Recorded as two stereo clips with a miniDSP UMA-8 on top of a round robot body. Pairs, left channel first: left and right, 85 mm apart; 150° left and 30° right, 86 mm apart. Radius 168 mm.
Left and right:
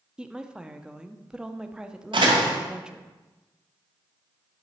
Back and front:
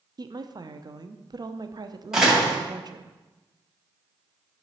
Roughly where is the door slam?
Right.